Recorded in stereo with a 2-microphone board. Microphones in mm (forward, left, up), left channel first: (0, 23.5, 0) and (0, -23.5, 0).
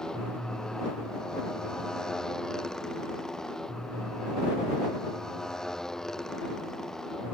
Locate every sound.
0.0 s a motorcycle: 15° left (ahead or behind); by 7.3 s 10° left (ahead or behind)